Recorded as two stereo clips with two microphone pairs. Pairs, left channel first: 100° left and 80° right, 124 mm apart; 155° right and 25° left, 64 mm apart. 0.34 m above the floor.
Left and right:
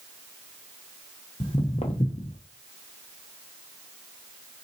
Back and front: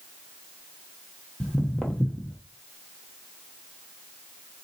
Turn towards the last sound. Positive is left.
turn(degrees=130)